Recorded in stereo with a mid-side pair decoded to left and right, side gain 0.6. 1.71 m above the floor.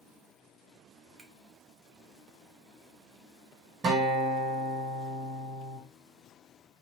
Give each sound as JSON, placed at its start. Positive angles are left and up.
{"t": 1.2, "sound": "a finger snap", "azimuth_deg": -30, "distance_m": 1.3}
{"t": 3.8, "sound": "a guitar", "azimuth_deg": -40, "distance_m": 1.5}